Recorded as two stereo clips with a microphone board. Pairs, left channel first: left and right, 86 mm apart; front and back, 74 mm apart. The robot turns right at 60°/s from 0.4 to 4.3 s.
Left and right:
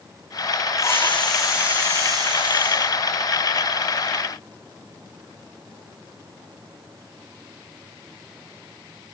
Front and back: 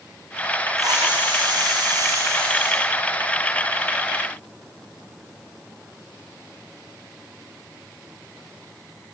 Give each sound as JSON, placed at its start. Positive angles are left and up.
{"t": 0.8, "sound": "a hiss", "azimuth_deg": 145, "distance_m": 8.0}